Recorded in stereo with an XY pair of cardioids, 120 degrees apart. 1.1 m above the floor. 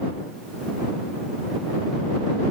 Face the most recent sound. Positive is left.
No sound to turn to.